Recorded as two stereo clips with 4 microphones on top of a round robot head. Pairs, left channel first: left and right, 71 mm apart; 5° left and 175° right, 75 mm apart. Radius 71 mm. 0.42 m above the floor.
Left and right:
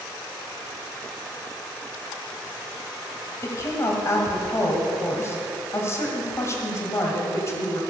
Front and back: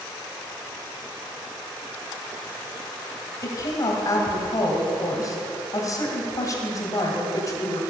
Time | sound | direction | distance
3.4 | a woman speaking | 40° left | 2.5 m